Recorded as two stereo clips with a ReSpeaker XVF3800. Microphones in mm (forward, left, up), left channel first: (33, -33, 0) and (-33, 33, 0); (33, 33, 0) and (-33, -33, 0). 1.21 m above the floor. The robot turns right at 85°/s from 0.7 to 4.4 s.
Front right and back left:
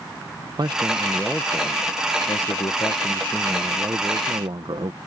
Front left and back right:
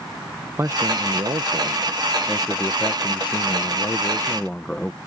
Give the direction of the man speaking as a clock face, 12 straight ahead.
6 o'clock.